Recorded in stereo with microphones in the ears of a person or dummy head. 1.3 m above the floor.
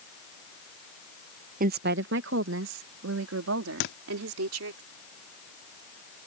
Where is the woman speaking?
45° right (ahead or behind); by 4.8 s 85° right.